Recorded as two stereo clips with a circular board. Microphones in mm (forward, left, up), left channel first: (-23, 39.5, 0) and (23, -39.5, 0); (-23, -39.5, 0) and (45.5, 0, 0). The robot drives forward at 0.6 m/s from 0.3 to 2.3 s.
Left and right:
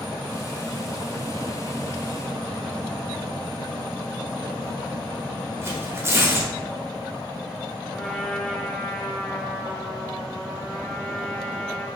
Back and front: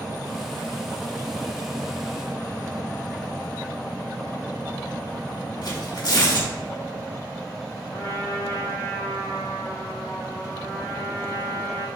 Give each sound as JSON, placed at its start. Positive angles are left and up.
{"t": 5.6, "sound": "tearing paper", "azimuth_deg": -120, "distance_m": 1.1}
{"t": 7.9, "sound": "a trumpet", "azimuth_deg": -170, "distance_m": 1.9}